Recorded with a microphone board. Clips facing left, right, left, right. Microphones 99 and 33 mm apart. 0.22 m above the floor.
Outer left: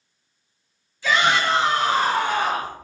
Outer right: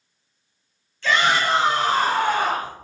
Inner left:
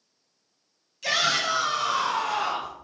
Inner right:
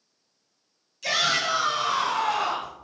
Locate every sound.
1.0 s a shout: 10° left (ahead or behind), 1.6 m; by 2.7 s 55° right (ahead or behind), 2.5 m